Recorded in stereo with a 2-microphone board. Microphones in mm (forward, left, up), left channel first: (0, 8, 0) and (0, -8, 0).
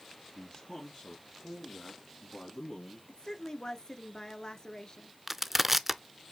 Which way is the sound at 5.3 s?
10° right (ahead or behind).